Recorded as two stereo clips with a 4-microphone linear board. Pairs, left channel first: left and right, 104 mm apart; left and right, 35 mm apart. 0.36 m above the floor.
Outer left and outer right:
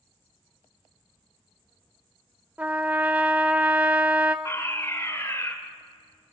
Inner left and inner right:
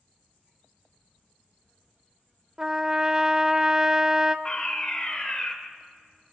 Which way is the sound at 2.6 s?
15° right (ahead or behind).